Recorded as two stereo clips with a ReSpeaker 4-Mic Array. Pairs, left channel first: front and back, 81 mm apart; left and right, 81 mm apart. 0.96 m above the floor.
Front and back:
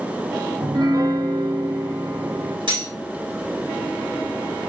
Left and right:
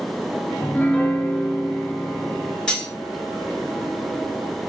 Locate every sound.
0.6 s a piano: 160° left, 0.5 m
2.7 s cutlery clinking: 170° left, 1.5 m